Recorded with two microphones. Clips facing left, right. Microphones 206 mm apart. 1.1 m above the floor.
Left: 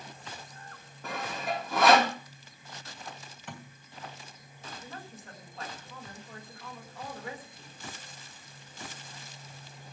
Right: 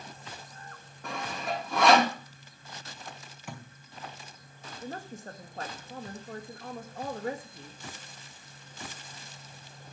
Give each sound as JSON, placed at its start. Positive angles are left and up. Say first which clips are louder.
{"t": 1.0, "sound": "sawing", "louder": "even", "side_deg": 0, "distance_m": 2.5}
{"t": 3.5, "sound": "a thud", "louder": "right 1 dB", "side_deg": -10, "distance_m": 3.0}
{"t": 4.8, "sound": "a woman speaking", "louder": "right 10 dB", "side_deg": -50, "distance_m": 1.9}